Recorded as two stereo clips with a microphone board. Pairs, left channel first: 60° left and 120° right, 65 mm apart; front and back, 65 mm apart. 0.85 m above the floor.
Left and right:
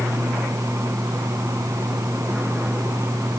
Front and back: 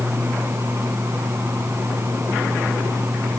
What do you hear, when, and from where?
Only background noise.